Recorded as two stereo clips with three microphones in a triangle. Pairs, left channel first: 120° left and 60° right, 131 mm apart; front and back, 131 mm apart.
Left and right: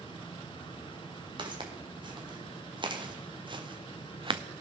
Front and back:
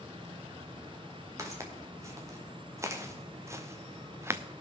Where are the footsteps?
115° right, 3.5 m; by 4.4 s 110° right, 0.8 m.